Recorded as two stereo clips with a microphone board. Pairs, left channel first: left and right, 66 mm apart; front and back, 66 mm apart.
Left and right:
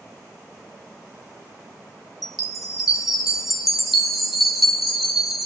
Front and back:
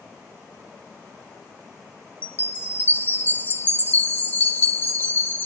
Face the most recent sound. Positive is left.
turn(degrees=-5)